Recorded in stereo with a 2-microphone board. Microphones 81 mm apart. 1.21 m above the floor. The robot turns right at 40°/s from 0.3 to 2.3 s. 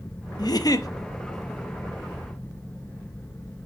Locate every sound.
0.4 s a giggle: 55° left (ahead or behind), 0.7 m; by 0.9 s 45° left (ahead or behind), 0.7 m